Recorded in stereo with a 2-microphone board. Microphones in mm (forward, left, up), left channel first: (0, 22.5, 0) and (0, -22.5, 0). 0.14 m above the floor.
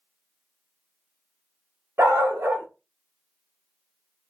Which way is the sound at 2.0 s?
60° right (ahead or behind).